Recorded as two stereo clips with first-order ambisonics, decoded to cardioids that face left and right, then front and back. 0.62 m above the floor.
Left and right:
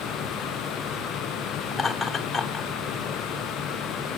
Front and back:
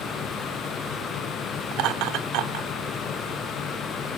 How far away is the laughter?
About 1.6 m.